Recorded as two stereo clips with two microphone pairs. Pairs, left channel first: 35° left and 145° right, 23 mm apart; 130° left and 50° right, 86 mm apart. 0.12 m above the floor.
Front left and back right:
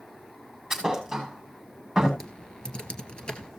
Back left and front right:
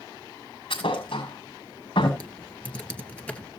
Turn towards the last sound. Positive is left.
turn(degrees=65)